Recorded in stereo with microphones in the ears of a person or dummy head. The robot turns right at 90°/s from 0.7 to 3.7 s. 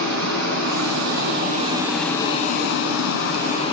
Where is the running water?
115° right, 3 m; by 3.7 s 155° left, 3 m.